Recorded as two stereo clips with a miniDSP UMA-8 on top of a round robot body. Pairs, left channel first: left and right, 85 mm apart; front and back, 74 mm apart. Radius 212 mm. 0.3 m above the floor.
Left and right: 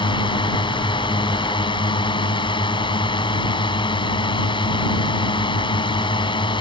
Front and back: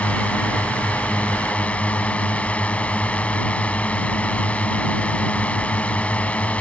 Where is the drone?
70° left.